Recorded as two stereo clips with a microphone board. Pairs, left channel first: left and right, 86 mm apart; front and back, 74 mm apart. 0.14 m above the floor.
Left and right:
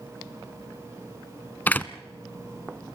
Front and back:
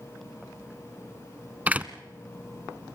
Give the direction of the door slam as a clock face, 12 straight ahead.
8 o'clock.